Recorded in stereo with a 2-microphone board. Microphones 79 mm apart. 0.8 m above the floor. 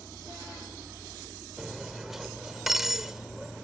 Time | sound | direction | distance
1.6 | cutlery clinking | 5° right (ahead or behind) | ?